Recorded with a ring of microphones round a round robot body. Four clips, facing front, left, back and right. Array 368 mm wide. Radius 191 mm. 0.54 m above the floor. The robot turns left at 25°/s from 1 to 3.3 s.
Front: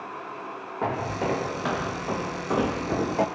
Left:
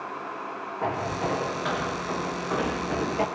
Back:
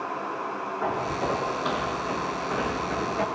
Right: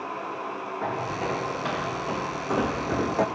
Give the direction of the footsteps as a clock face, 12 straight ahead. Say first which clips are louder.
Left 2 dB, front 1 dB; 12 o'clock.